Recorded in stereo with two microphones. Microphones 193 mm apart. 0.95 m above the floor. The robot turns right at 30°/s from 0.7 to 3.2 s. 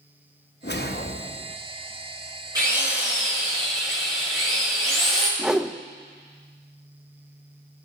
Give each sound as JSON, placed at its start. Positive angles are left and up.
{"t": 0.6, "sound": "a whoosh", "side_deg": 60, "distance_m": 0.9}
{"t": 2.5, "sound": "a drill", "side_deg": -20, "distance_m": 6.0}
{"t": 5.4, "sound": "a whoosh", "side_deg": -5, "distance_m": 0.6}